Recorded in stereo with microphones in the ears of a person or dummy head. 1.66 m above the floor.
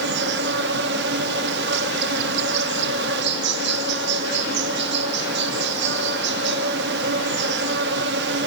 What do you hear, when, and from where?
0.0 s an insect: 70° right (ahead or behind), 1.2 m